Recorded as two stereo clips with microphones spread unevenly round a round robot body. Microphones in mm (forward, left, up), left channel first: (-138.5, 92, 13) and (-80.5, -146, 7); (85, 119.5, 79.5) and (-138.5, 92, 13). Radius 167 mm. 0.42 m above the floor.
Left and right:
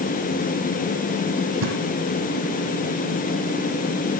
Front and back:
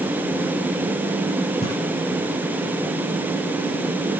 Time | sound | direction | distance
1.6 | a thud | 65° right | 8.5 m